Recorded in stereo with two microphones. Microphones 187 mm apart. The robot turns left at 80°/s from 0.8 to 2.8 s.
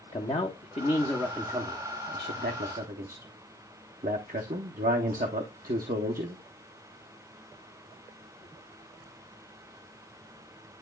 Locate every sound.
0.1 s a man speaking: 35° left (ahead or behind), 0.9 m; by 6.4 s 50° right (ahead or behind), 0.9 m